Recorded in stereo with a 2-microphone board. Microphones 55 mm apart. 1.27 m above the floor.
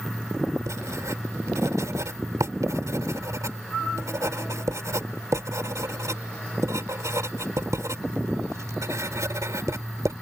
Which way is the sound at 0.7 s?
75° right (ahead or behind).